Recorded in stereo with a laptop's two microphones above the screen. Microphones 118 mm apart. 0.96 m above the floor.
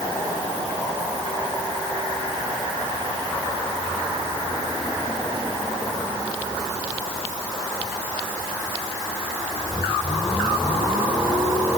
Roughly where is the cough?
I don't hear a cough.